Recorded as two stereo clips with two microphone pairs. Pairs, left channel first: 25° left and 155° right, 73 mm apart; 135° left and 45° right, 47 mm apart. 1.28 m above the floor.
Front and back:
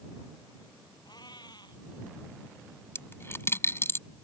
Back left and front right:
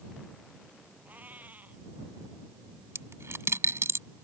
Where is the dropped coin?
30° right.